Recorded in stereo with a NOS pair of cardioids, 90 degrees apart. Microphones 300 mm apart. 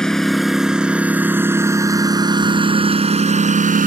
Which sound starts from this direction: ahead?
A lawn mower, at 0.0 s.